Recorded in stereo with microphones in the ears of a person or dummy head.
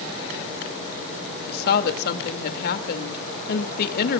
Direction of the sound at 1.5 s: 55° left (ahead or behind).